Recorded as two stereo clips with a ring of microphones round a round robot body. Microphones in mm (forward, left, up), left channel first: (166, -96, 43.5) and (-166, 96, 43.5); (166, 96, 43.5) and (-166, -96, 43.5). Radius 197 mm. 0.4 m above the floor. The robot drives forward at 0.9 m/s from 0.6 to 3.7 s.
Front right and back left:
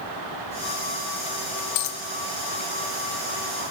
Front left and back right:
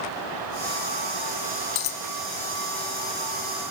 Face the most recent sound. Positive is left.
turn(degrees=130)